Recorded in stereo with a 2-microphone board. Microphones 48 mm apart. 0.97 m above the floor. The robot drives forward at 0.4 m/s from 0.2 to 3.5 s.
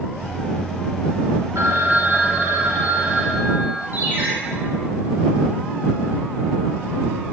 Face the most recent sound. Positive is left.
turn(degrees=-45)  # may be behind; listen again after turning